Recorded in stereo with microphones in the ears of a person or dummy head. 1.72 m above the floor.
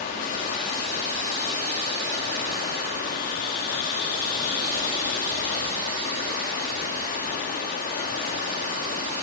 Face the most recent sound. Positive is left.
turn(degrees=50)  # may be behind; listen again after turning